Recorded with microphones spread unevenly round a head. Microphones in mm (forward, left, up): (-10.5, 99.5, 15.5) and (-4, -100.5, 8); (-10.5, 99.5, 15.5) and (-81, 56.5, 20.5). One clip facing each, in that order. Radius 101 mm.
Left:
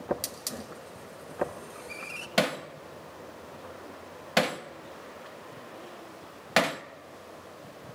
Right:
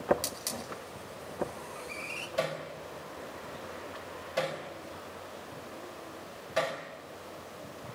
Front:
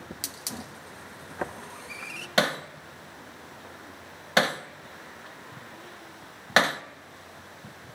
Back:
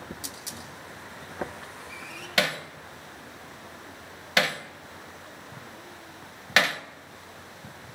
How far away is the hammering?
About 1.3 m.